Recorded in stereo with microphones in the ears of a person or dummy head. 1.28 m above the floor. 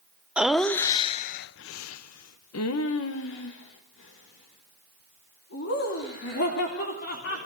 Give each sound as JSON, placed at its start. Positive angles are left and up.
{"t": 0.4, "sound": "laughter", "side_deg": -5, "distance_m": 0.7}